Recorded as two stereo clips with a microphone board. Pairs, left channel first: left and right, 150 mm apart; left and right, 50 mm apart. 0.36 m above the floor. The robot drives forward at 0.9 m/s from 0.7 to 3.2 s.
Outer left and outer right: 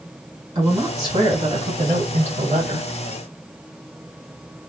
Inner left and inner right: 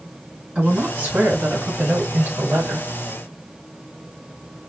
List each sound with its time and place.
0.6 s a woman speaking: 30° right (ahead or behind), 3.5 m; by 2.9 s 50° right (ahead or behind), 2.5 m